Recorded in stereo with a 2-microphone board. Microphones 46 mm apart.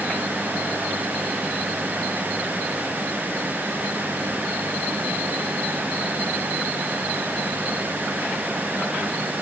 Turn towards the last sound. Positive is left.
No sound to turn to.